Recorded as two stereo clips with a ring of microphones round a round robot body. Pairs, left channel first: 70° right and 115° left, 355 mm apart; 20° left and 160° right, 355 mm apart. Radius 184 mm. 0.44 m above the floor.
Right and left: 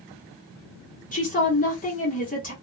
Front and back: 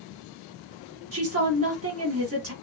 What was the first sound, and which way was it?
A woman speaking, 125° right.